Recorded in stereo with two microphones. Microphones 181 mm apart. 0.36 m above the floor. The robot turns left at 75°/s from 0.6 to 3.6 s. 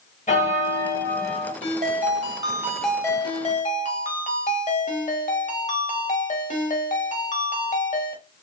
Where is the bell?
55° left, 1.7 m; by 1.5 s 10° right, 1.7 m.